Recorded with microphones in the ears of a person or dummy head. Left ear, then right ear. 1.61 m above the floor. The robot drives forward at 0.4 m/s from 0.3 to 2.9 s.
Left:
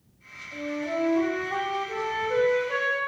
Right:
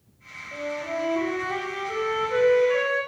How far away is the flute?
About 2 m.